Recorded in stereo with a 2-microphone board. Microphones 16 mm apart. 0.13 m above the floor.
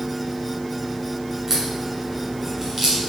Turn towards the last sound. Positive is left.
turn(degrees=-25)  # may be behind; listen again after turning